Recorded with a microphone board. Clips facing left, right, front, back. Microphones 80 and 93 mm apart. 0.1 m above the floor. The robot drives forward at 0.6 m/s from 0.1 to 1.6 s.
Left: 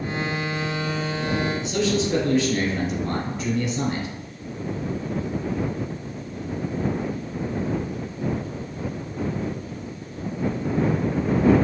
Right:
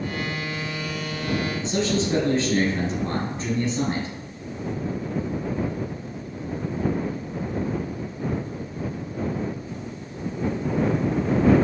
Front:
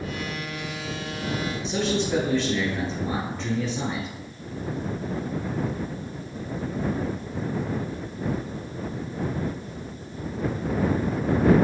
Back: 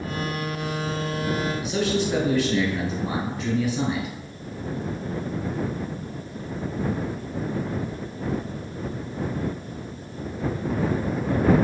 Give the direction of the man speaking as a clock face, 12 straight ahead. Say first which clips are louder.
Left 1 dB, front 1 dB; 4 o'clock.